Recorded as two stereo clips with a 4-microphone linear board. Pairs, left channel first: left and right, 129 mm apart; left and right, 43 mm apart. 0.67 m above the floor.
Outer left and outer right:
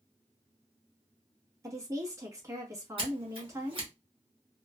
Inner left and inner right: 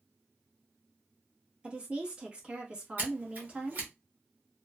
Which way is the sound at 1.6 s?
25° right (ahead or behind).